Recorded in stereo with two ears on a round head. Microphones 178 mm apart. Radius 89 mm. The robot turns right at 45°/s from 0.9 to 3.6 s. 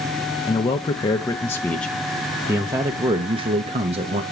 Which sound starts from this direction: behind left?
A man speaking, at 0.5 s.